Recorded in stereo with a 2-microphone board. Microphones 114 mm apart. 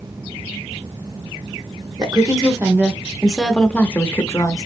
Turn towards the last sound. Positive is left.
turn(degrees=30)  # may be behind; listen again after turning